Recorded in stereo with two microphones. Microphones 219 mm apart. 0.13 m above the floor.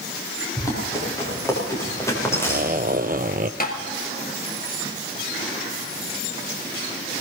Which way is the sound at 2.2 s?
40° right (ahead or behind).